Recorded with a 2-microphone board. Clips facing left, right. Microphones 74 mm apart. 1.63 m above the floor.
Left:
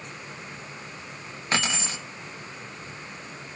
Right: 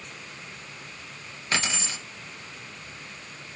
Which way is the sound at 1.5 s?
35° left (ahead or behind).